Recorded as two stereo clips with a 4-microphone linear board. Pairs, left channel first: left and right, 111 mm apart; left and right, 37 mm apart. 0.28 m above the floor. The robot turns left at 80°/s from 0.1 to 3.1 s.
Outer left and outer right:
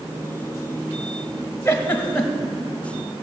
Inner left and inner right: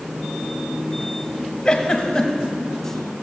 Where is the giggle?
20° left (ahead or behind), 1.1 m; by 2.5 s centre (ahead or behind), 1.1 m.